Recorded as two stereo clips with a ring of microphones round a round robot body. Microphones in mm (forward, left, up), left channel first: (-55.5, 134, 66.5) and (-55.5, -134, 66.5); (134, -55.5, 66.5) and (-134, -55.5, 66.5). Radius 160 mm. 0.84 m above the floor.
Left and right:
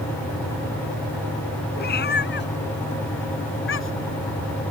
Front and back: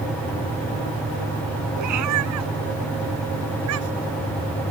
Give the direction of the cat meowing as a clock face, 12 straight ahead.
7 o'clock.